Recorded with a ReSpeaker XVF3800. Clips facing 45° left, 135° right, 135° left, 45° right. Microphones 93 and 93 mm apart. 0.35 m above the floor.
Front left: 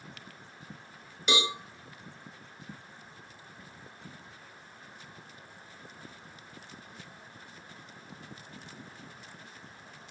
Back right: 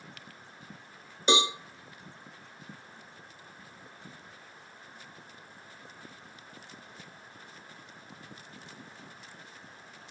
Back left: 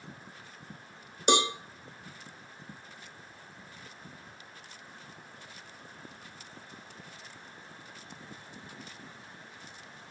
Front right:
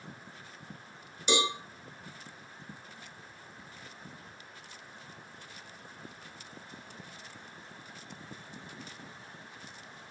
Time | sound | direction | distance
1.3 | a cowbell | 170° left | 0.7 m